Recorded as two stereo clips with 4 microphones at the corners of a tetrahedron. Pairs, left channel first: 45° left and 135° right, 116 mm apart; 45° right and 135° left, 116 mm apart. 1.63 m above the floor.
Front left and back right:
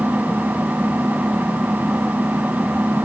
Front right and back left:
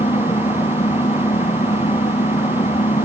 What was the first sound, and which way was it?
An engine running, 55° right.